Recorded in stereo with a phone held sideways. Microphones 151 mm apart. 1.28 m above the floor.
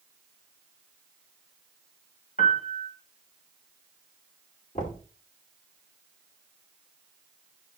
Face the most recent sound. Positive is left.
turn(degrees=55)  # may be behind; listen again after turning